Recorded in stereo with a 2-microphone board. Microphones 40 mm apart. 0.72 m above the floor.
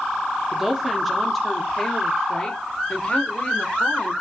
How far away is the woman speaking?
About 1.8 m.